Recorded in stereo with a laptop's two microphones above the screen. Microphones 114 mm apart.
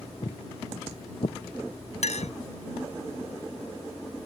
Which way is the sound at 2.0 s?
75° left (ahead or behind).